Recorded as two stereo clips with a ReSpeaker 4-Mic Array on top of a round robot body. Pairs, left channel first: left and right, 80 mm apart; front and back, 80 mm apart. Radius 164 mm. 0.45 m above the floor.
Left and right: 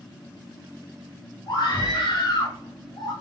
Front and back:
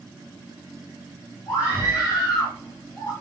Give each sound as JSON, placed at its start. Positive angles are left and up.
{"t": 1.5, "sound": "a scream", "azimuth_deg": 50, "distance_m": 5.5}